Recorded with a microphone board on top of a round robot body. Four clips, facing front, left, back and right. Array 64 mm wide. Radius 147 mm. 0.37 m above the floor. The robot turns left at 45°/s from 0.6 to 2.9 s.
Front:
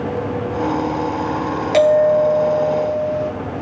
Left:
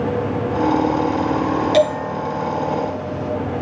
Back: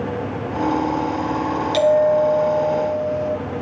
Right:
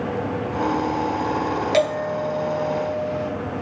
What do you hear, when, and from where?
1.7 s a bell: 20° right, 5.5 m; by 3.3 s 75° right, 5.5 m